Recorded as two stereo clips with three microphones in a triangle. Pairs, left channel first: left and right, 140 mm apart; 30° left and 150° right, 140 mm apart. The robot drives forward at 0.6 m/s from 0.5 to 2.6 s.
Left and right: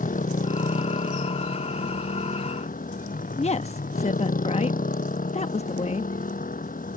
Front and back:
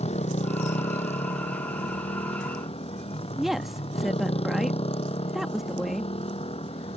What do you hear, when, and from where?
0.0 s a motorcycle: 70° left; by 7.0 s 75° left
3.4 s a woman speaking: 120° left